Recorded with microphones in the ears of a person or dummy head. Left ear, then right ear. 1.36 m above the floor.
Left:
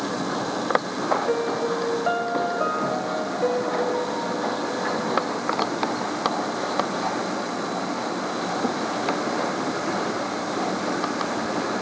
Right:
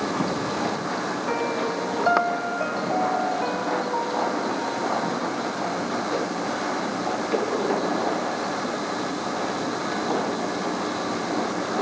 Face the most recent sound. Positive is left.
turn(degrees=-10)  # may be behind; listen again after turning